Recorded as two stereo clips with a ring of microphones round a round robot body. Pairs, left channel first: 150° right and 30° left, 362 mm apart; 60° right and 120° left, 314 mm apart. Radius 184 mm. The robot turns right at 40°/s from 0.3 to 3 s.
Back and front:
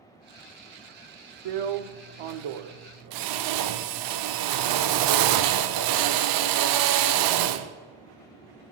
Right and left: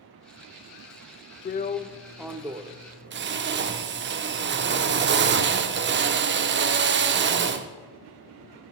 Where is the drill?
Straight ahead, 0.5 m; by 7.7 s 65° left, 0.5 m.